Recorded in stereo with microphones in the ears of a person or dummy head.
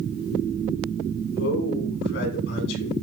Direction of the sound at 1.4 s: 70° left (ahead or behind).